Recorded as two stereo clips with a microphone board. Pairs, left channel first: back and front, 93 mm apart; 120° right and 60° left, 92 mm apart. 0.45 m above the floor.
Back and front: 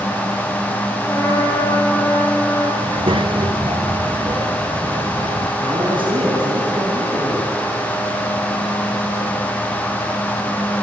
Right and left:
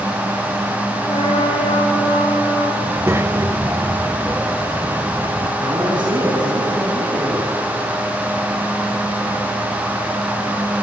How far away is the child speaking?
About 1.0 m.